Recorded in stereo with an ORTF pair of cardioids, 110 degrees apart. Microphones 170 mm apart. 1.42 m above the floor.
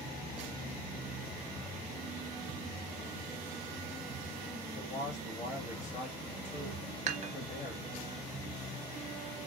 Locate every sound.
4.7 s a man speaking: 40° left, 2 m
7.1 s dishes clattering: 50° right, 1.2 m